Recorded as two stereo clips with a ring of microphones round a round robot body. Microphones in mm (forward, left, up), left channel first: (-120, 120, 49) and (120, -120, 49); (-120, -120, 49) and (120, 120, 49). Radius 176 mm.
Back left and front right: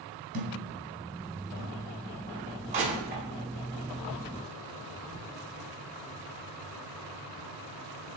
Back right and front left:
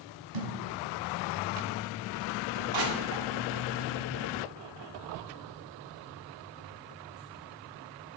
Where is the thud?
20° left, 2 m.